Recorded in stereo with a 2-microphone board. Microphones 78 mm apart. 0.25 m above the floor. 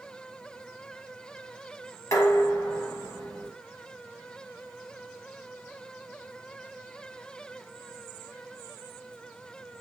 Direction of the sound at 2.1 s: 45° left (ahead or behind).